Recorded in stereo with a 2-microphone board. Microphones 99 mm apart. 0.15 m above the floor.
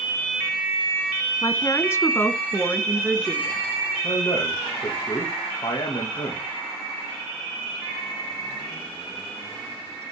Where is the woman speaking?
35° left (ahead or behind), 1.4 m; by 3.6 s 5° right (ahead or behind), 2.5 m.